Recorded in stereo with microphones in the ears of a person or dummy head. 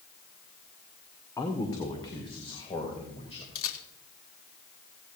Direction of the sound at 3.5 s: 70° left (ahead or behind).